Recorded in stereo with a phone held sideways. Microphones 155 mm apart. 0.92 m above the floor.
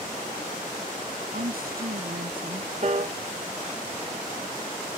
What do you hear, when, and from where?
1.3 s a woman speaking: 75° right (ahead or behind)
2.8 s a piano: 45° right (ahead or behind)